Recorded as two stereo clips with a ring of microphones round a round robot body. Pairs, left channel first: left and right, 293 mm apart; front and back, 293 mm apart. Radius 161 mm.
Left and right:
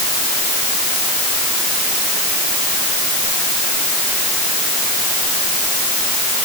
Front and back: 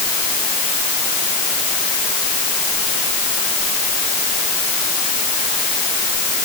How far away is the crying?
I don't hear crying.